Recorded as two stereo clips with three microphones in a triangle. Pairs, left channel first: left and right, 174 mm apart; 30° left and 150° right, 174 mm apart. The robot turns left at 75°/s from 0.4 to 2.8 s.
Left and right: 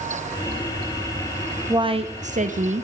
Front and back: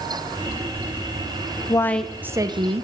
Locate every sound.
1.7 s a woman speaking: 30° right, 0.9 m; by 2.8 s 115° right, 0.9 m